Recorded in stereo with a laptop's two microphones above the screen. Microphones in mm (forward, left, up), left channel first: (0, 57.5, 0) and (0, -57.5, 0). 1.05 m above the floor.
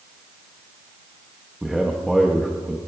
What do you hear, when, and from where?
1.6 s a man speaking: 5° right (ahead or behind), 0.9 m